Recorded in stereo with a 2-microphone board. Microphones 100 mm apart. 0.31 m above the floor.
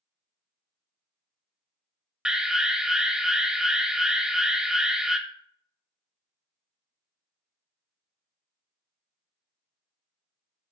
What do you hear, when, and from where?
2.2 s an alarm: 5° right (ahead or behind), 0.8 m